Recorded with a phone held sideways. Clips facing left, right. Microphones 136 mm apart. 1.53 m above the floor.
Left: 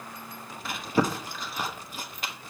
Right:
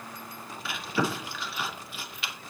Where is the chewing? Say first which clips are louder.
Left 3 dB; 45° left (ahead or behind), 1.3 m.